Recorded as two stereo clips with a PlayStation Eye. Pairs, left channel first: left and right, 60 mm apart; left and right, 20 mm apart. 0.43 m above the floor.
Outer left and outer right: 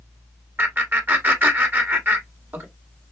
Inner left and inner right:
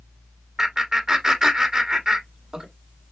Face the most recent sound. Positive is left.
turn(degrees=-35)  # may be behind; listen again after turning